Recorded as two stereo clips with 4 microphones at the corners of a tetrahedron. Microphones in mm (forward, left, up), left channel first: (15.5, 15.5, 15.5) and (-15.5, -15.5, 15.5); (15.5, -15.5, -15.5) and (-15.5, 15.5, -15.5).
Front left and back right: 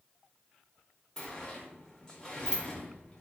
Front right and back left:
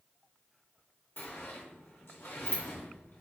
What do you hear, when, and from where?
1.2 s a sliding door: 25° right, 0.9 m